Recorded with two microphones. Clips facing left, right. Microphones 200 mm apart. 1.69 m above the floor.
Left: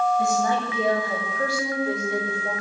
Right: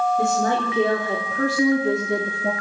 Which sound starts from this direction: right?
A woman speaking, at 0.2 s.